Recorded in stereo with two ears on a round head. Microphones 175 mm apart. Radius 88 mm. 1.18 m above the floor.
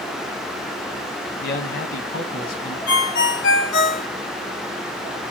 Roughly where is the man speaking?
Left.